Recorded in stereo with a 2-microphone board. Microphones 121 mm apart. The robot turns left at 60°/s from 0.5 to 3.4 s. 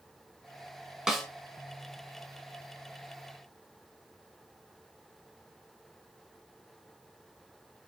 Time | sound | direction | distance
1.1 | a snare drum | 5° right (ahead or behind) | 0.8 m